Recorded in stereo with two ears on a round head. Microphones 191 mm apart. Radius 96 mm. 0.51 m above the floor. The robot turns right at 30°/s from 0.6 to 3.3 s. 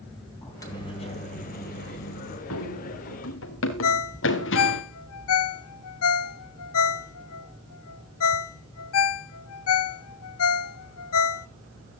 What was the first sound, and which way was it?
A microwave, 15° left.